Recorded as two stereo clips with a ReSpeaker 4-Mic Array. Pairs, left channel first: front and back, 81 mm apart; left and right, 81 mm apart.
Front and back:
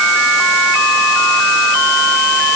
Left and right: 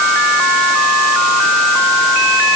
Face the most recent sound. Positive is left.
No sound to turn to.